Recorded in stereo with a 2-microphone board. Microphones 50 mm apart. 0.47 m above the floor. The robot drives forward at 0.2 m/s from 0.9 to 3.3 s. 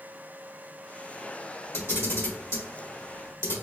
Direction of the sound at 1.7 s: 55° left (ahead or behind).